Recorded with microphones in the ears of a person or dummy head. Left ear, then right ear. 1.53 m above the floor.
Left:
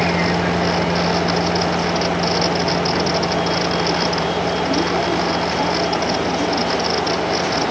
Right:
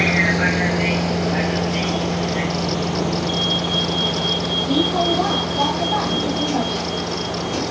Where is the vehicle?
80° right; by 7.7 s 65° right (ahead or behind).